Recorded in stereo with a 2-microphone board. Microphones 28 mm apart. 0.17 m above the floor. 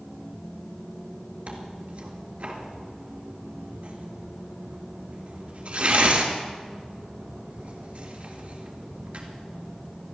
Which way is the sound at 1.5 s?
55° right (ahead or behind).